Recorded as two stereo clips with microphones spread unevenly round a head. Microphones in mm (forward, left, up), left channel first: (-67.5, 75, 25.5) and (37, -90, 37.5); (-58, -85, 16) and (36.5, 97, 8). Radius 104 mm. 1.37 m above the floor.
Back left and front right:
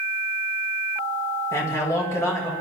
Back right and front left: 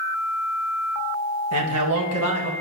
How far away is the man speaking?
About 1.7 m.